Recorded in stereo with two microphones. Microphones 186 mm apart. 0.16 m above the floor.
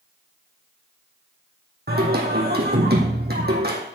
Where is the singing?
60° right (ahead or behind), 2.5 m.